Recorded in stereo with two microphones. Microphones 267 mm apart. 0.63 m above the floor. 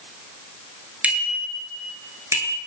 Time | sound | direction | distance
1.0 | a bicycle bell | 5° right (ahead or behind) | 7 m